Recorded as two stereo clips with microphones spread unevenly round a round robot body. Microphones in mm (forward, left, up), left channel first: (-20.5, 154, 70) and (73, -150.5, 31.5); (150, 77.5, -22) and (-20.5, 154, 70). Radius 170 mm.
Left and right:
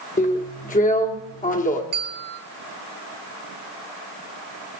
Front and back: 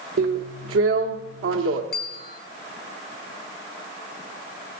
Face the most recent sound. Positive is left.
turn(degrees=-15)